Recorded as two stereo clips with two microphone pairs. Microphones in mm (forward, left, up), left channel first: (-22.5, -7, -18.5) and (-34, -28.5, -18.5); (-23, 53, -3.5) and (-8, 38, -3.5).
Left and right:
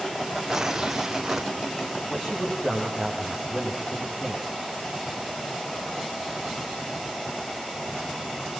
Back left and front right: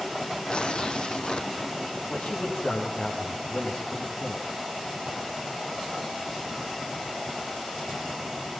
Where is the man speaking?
130° left, 10 m.